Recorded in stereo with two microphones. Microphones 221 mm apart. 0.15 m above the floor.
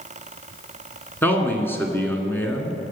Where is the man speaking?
10° left (ahead or behind), 1.5 m.